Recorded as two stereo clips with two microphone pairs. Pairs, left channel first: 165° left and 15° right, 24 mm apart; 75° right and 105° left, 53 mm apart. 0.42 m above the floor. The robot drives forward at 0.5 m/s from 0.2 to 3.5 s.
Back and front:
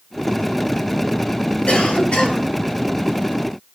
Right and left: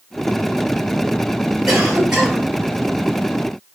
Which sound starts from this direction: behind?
A cough, at 1.7 s.